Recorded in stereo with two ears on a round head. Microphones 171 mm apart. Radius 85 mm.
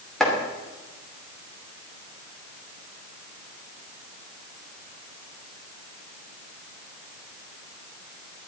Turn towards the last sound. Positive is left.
turn(degrees=0)  # may be behind; listen again after turning